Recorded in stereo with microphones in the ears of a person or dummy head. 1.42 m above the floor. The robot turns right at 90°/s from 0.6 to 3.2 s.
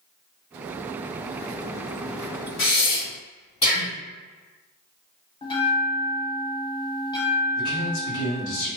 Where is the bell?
20° left (ahead or behind), 0.9 m.